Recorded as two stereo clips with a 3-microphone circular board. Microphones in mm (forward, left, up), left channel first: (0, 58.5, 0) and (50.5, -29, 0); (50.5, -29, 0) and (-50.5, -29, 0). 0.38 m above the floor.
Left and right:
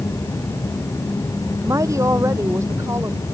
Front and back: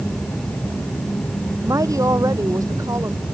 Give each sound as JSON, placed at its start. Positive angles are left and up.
{"t": 1.6, "sound": "a woman speaking", "azimuth_deg": -120}